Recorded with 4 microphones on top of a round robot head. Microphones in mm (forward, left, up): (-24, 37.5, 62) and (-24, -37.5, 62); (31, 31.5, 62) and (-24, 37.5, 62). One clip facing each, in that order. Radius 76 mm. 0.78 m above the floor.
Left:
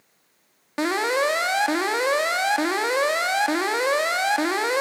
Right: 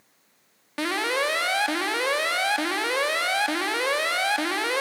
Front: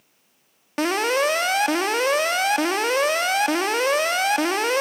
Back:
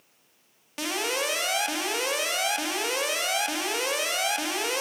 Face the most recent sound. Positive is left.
turn(degrees=25)